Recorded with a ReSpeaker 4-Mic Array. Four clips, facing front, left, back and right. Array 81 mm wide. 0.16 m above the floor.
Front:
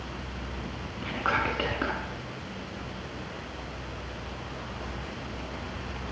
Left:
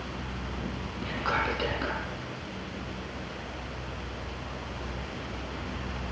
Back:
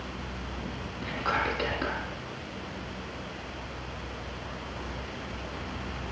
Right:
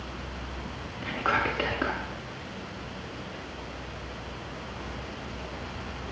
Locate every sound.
1.0 s whispering: 35° right, 1.2 m